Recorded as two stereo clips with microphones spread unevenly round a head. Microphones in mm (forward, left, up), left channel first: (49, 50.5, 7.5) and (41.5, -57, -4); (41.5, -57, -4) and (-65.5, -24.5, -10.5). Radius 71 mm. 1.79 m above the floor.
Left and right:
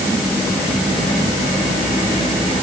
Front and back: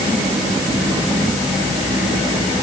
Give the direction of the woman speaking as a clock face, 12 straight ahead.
No woman speaking in this recording.